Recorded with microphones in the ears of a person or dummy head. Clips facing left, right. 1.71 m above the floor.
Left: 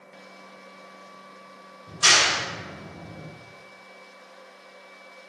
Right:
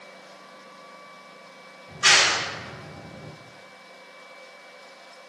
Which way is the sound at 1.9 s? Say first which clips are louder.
Even; 60° left (ahead or behind).